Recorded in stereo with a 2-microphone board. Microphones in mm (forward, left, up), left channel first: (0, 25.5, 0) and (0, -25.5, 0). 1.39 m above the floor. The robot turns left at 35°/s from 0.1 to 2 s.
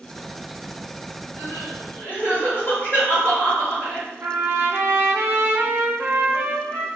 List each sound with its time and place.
1.4 s crying: 55° left (ahead or behind), 1.5 m; by 4.1 s 35° left (ahead or behind), 1.5 m
4.2 s a trumpet: 45° right (ahead or behind), 0.6 m